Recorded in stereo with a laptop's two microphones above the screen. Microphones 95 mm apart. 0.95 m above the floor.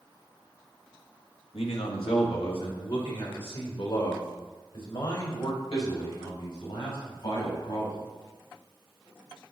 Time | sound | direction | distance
1.5 | a man speaking | 75° left (ahead or behind) | 1.2 m